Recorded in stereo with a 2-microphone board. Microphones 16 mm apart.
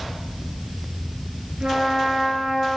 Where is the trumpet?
65° right (ahead or behind), 5 m.